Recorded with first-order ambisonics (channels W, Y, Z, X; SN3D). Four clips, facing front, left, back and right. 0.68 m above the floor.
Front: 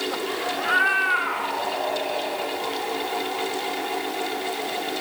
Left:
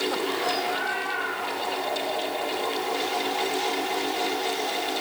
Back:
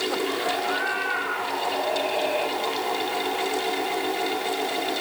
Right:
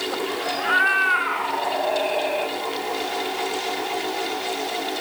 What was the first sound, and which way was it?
A cat meowing, 55° right.